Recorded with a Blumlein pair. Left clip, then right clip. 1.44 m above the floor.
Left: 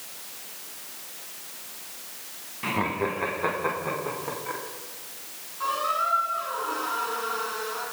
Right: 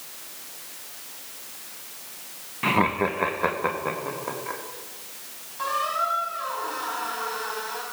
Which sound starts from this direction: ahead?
Laughter, at 2.6 s.